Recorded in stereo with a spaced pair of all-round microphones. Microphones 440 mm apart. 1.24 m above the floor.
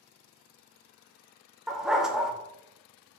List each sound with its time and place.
1.7 s a dog barking: centre (ahead or behind), 0.8 m